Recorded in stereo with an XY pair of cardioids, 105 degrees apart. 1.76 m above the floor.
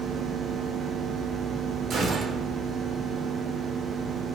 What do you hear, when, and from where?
1.9 s a gunshot: 50° right, 5.5 m